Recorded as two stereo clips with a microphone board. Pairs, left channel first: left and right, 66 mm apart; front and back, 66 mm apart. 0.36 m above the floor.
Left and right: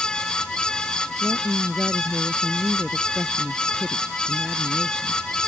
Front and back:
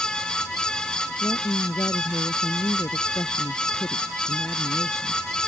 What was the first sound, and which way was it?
A woman speaking, 15° right.